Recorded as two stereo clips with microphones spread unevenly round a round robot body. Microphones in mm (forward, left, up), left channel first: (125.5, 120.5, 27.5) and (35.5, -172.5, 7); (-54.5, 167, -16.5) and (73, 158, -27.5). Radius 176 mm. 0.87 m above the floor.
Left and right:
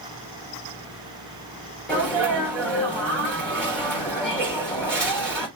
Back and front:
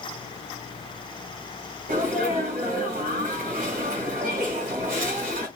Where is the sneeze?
15° right, 3 m.